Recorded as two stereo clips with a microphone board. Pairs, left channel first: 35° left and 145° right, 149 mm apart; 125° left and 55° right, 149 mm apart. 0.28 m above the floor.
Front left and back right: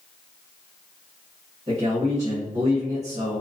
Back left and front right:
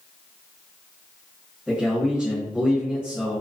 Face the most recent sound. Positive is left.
turn(degrees=-135)